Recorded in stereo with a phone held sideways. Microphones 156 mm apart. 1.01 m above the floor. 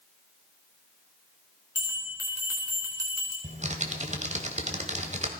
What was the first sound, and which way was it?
A bell, 15° right (ahead or behind).